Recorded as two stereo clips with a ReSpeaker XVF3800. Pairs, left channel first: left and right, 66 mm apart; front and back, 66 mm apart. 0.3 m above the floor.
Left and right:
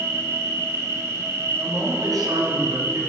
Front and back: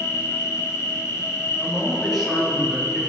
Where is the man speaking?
90° right, 3 m.